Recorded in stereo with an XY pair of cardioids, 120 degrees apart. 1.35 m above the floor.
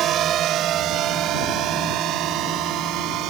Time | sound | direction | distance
0.0 | a drone | 60° right | ?